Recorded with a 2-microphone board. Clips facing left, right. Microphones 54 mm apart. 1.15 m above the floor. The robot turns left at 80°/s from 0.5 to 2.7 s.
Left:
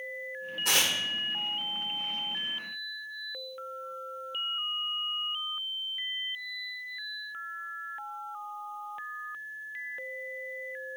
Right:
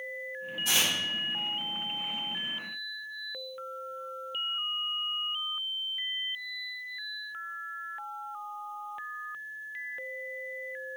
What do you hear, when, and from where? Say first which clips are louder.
0.7 s tearing paper: left 1 dB; 70° left (ahead or behind), 1.6 m; by 0.9 s 50° left (ahead or behind), 1.6 m